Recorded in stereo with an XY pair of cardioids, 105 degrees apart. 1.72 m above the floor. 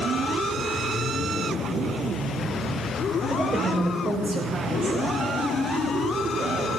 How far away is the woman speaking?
About 5.5 m.